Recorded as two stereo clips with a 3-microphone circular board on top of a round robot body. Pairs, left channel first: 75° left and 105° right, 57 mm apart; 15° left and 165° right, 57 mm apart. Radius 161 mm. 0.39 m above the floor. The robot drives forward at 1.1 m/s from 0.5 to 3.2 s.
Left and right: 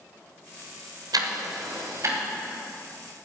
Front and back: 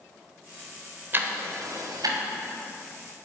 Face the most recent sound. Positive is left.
turn(degrees=-160)